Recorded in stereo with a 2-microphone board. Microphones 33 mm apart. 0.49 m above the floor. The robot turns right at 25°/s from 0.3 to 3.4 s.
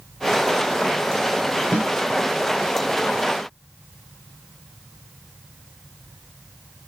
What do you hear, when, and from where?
1.7 s a snare drum: 55° left (ahead or behind), 1.7 m